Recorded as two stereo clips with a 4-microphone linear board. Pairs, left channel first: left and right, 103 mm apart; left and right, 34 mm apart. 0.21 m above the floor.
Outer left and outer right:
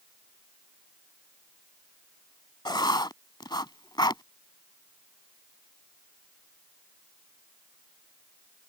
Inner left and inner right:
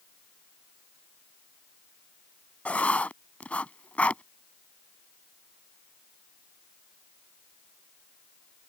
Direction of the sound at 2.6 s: 45° left (ahead or behind).